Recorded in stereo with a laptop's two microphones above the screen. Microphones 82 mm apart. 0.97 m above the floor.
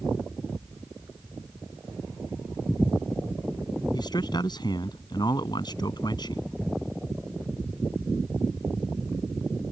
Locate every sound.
3.9 s a man speaking: 55° left (ahead or behind)